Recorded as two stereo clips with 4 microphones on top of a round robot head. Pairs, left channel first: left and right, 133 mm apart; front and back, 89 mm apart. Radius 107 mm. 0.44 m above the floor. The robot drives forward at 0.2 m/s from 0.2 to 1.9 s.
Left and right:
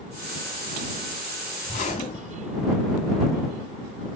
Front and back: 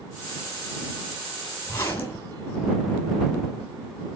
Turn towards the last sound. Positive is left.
turn(degrees=65)